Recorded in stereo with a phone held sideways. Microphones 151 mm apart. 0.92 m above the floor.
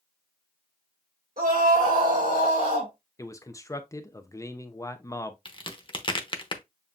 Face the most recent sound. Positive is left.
turn(degrees=35)  # may be behind; listen again after turning